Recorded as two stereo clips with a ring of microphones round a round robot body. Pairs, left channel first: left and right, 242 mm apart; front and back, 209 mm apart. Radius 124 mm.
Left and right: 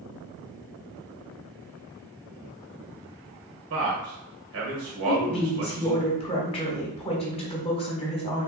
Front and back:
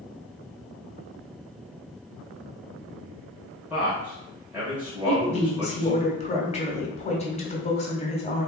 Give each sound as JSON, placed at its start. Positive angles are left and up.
{"t": 3.7, "sound": "a man speaking", "azimuth_deg": -100, "distance_m": 1.7}
{"t": 5.1, "sound": "a woman speaking", "azimuth_deg": 40, "distance_m": 1.3}